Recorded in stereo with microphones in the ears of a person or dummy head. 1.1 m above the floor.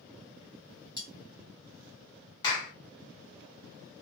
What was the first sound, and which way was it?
Cutlery clinking, 25° left (ahead or behind).